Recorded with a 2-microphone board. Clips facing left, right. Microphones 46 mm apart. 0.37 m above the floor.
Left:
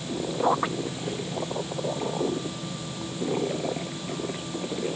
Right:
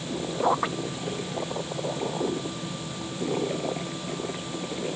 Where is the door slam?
No door slam in this recording.